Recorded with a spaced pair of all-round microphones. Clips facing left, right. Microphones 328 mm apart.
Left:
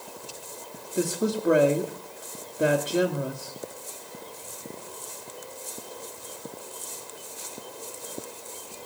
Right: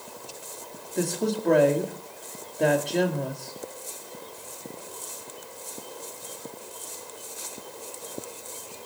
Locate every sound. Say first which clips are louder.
0.9 s a woman speaking: left 1 dB; 10° left (ahead or behind), 1.9 m